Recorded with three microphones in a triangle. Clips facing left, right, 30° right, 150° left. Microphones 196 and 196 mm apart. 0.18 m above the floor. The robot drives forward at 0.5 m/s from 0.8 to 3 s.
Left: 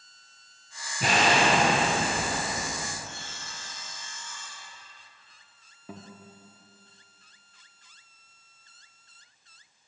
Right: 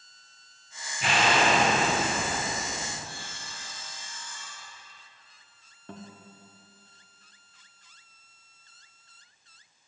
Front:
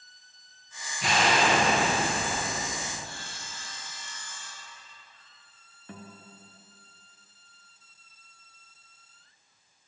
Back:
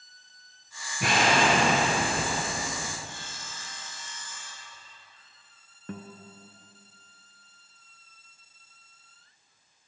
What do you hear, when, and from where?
1.0 s an explosion: 130° left, 1.6 m; by 2.9 s 150° left, 2.5 m
3.0 s sawing: 140° right, 2 m
5.9 s a guitar: 175° left, 0.6 m